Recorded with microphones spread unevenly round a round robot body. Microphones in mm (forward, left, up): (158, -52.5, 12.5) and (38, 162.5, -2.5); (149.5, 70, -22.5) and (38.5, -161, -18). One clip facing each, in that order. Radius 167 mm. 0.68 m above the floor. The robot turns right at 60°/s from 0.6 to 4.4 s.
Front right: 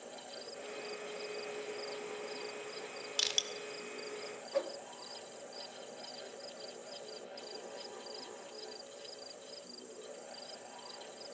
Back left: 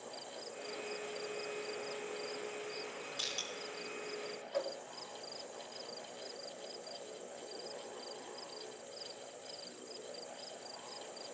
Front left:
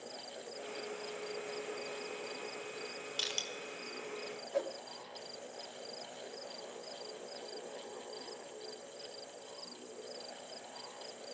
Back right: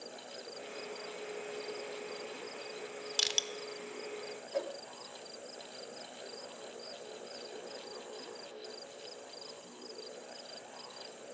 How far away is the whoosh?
About 1.4 m.